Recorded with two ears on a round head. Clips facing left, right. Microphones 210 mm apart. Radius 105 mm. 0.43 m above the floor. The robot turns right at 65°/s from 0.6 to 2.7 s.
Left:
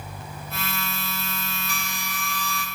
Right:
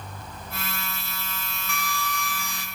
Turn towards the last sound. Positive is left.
turn(degrees=-150)